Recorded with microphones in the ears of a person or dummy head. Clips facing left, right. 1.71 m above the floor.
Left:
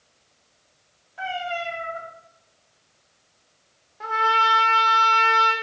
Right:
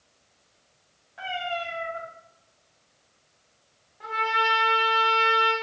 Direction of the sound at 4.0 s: 55° left (ahead or behind).